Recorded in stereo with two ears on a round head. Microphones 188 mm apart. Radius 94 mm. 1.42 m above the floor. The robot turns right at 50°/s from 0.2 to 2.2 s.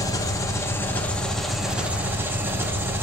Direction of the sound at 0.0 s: 15° left (ahead or behind).